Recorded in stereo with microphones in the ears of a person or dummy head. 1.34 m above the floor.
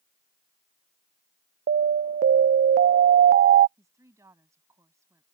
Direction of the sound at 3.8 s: 15° right (ahead or behind).